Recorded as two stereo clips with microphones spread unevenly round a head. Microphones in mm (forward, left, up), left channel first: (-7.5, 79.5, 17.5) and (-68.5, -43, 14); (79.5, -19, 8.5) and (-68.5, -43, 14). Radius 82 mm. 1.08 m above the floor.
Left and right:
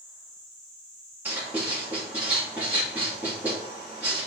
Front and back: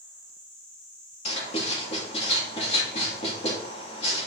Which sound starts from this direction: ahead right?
Writing, at 1.2 s.